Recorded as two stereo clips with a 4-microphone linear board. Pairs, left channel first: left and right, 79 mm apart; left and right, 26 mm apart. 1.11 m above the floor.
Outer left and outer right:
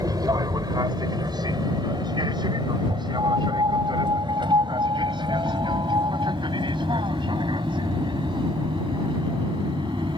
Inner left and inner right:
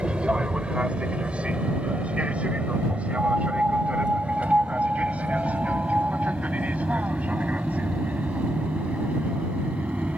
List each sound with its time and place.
0.0 s an aircraft: 55° right (ahead or behind); by 10.2 s 80° right
3.2 s a piano: 65° right (ahead or behind)